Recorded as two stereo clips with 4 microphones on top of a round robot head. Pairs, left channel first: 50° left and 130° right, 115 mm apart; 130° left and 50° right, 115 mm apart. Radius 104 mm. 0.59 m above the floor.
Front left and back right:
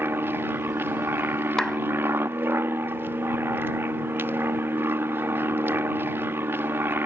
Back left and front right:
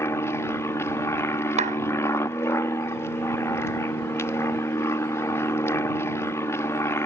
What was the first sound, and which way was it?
An aircraft, 175° left.